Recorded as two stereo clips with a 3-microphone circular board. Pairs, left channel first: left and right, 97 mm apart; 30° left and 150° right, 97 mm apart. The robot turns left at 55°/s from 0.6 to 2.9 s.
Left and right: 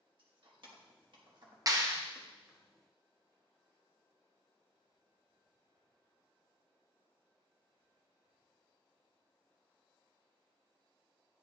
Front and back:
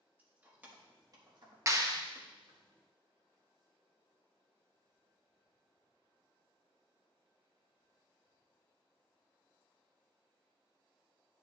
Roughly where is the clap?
Behind right.